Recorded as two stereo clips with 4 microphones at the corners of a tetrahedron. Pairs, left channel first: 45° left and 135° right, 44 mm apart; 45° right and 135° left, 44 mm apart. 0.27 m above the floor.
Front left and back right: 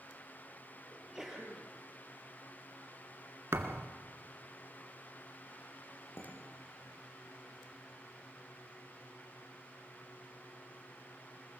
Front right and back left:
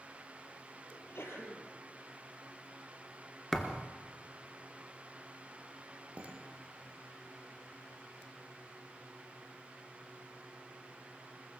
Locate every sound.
0.9 s a sneeze: 50° right, 6 m
3.5 s a thud: 125° right, 1.9 m
6.2 s dishes clattering: 75° left, 6 m